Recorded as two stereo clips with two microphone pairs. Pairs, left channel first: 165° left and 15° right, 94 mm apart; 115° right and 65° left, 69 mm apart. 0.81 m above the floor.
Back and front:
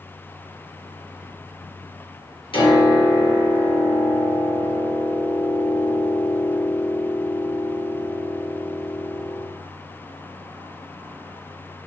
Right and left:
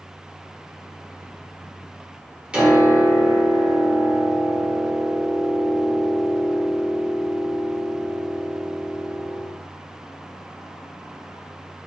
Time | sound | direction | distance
2.5 | a piano | 140° left | 1.0 m